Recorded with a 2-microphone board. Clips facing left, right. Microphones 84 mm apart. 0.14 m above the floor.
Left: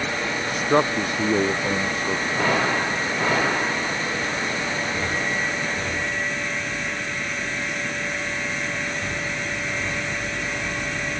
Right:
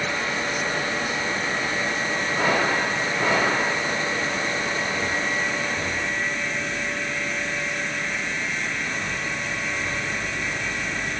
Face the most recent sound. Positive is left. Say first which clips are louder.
# left 6 dB
turn(degrees=65)  # may be behind; listen again after turning